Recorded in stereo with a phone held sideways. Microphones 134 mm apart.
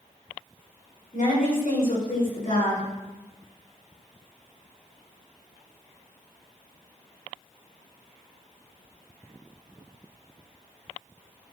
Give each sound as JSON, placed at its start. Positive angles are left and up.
{"t": 1.1, "sound": "a woman speaking", "side_deg": 75, "distance_m": 5.0}